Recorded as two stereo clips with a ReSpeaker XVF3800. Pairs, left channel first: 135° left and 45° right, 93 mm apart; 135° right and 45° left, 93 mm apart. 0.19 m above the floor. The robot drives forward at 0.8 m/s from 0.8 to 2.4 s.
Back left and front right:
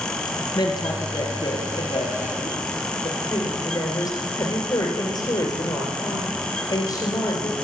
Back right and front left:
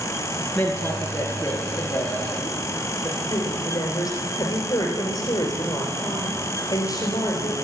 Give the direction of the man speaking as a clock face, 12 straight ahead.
7 o'clock.